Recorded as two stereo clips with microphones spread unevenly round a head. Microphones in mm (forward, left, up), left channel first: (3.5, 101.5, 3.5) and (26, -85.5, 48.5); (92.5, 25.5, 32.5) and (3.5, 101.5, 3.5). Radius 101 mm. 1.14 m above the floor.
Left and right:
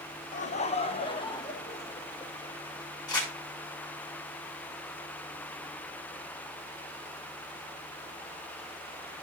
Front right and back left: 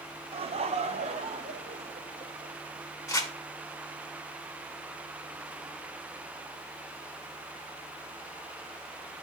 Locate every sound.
0.3 s laughter: 130° left, 1.2 m; by 2.5 s 175° left, 2.5 m
3.1 s crumpling: 25° left, 7 m